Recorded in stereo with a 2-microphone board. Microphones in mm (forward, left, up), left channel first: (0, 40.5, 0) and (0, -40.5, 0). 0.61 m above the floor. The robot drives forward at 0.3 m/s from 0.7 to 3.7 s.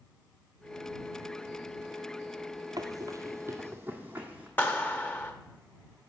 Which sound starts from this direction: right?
Running footsteps, at 2.8 s.